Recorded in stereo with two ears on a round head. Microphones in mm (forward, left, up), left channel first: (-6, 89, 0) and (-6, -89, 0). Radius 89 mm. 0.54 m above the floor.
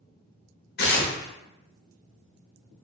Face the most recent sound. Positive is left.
turn(degrees=55)  # may be behind; listen again after turning